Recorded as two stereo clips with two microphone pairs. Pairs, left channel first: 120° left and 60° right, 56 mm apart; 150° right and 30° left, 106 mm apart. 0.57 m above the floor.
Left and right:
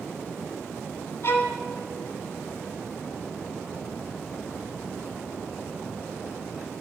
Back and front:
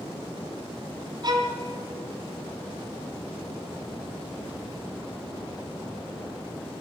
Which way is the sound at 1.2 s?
75° left.